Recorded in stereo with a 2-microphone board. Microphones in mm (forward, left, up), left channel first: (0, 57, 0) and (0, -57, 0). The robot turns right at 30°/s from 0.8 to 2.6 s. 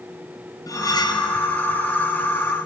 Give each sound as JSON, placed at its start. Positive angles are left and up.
{"t": 0.7, "sound": "cutlery clinking", "side_deg": 30, "distance_m": 0.6}